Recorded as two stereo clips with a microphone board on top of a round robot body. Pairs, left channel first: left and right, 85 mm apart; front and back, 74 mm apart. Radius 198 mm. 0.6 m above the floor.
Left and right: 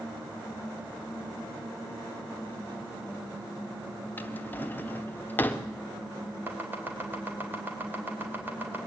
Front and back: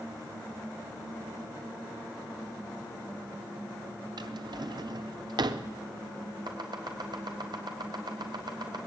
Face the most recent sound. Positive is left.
turn(degrees=-160)